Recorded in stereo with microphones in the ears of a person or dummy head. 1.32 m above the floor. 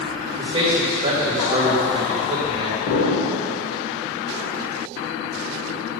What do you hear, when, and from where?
0.4 s a man speaking: 30° right (ahead or behind), 1.7 m
2.9 s an explosion: 65° left (ahead or behind), 2 m